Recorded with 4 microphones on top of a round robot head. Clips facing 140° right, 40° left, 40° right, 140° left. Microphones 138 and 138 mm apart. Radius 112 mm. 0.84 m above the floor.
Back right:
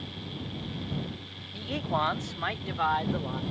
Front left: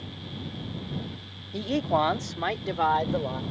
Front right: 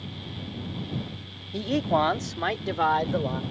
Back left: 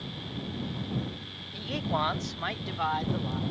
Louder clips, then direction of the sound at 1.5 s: Front left 6 dB, front right 8 dB; 5° right.